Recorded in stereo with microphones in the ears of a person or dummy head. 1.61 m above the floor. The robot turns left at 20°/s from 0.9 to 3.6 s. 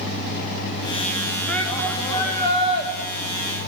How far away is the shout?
About 2 m.